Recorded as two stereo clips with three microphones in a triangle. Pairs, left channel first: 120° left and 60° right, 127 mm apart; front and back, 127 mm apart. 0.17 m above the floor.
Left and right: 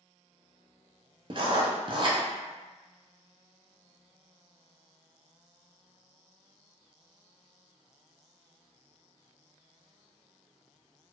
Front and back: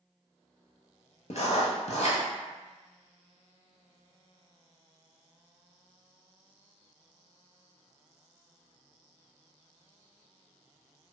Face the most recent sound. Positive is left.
turn(degrees=-15)